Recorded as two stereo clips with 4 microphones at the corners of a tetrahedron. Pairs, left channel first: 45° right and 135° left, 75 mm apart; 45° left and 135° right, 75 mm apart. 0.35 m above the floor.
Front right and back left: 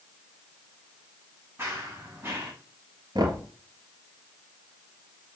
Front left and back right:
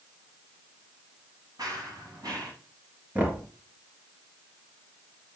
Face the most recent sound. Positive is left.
turn(degrees=160)